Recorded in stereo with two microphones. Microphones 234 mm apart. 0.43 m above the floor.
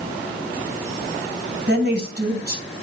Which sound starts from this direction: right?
A woman speaking, at 1.7 s.